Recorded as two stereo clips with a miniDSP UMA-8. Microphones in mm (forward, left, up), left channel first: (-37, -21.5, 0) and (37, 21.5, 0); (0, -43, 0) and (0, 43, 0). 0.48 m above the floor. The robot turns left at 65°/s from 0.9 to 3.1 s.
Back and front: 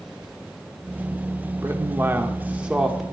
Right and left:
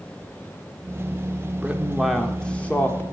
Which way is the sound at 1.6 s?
30° left.